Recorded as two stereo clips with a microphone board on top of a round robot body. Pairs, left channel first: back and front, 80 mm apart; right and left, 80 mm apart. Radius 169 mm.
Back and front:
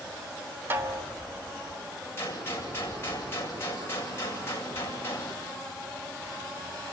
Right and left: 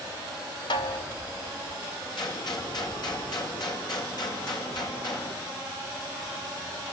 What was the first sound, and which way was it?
A snare drum, 65° right.